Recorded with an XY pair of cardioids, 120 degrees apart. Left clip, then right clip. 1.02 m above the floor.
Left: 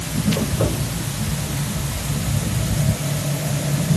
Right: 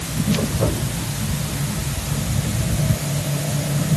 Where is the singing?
I don't hear singing.